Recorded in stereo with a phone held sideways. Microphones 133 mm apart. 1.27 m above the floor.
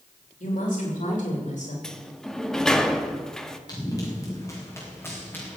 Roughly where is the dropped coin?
I don't hear a dropped coin.